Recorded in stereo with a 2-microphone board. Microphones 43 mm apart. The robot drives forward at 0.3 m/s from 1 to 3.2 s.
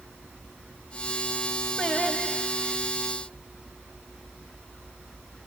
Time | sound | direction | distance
1.8 | singing | centre (ahead or behind) | 1.4 m